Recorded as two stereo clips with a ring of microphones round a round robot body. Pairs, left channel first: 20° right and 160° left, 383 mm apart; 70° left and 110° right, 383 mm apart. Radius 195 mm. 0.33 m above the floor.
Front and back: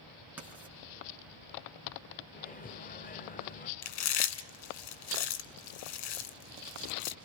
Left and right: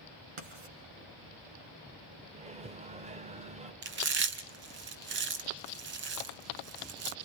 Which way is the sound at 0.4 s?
115° right.